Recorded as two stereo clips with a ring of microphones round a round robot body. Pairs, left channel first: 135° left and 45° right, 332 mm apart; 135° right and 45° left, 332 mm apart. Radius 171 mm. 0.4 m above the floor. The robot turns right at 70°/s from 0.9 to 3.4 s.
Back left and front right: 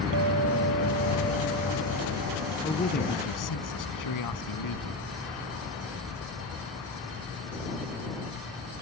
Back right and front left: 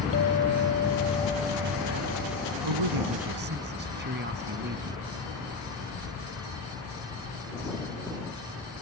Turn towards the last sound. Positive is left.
turn(degrees=105)